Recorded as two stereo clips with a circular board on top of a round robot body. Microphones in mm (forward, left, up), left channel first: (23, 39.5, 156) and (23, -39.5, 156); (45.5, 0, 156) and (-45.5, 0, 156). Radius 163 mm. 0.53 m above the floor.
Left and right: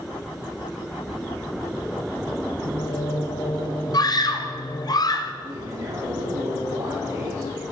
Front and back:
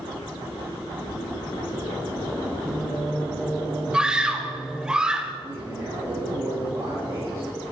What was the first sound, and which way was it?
Singing, 90° left.